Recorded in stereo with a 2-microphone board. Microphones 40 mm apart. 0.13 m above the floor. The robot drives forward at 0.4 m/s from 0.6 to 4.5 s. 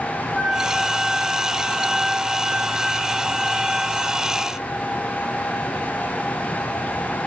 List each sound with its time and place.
0.3 s a flute: 20° right (ahead or behind), 4 m; by 4.5 s 15° right (ahead or behind), 5.5 m